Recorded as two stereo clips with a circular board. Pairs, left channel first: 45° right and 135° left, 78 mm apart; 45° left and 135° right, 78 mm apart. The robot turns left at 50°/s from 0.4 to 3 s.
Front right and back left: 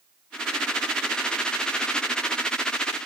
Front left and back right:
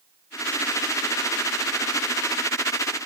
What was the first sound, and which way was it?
Only background noise.